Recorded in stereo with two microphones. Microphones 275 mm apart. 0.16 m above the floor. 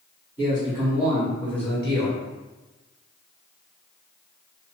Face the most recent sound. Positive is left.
turn(degrees=0)  # may be behind; listen again after turning